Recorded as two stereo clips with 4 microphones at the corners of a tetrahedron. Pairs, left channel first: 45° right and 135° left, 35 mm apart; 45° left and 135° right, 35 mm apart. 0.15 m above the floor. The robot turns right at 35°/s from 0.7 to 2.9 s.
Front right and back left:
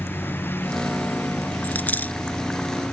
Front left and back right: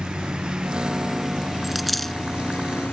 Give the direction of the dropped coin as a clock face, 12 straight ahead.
2 o'clock.